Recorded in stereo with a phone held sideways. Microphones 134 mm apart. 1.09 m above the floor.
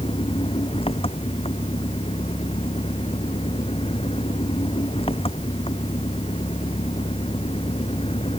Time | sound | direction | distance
0.0 | an engine running | 45° left (ahead or behind) | ?